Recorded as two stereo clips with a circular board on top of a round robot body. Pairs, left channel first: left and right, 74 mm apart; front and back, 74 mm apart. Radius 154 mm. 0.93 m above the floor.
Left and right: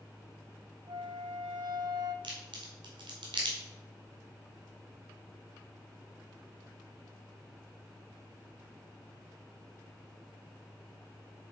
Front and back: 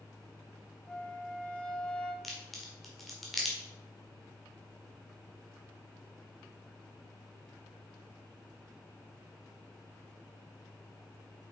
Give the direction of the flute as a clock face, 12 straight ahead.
3 o'clock.